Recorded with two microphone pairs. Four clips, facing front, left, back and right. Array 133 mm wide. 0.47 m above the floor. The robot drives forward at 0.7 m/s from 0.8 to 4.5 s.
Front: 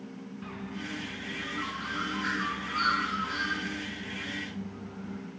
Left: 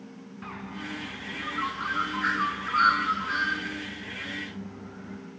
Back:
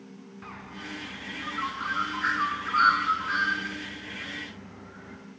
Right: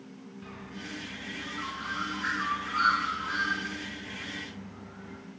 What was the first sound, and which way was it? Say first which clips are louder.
A bird: left 6 dB, front 2 dB; 115° left.